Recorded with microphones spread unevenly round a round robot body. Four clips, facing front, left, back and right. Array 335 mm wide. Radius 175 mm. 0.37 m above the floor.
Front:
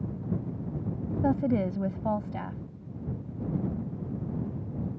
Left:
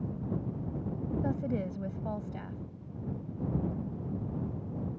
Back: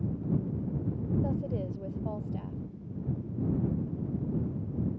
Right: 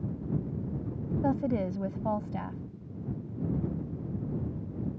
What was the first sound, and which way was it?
A woman speaking, 15° right.